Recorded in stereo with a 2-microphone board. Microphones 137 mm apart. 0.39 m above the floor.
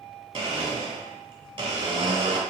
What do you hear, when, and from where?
0.3 s a blender: 35° right (ahead or behind), 1.4 m